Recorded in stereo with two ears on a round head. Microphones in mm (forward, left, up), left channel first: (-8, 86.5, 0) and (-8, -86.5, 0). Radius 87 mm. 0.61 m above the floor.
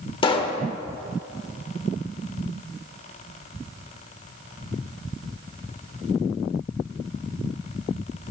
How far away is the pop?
About 1.0 m.